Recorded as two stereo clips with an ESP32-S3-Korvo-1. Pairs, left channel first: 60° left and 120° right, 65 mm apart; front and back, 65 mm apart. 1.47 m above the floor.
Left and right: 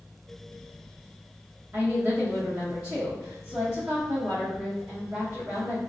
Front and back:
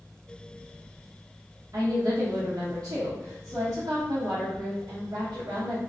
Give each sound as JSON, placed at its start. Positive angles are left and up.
{"t": 1.7, "sound": "a woman speaking", "azimuth_deg": -170, "distance_m": 1.0}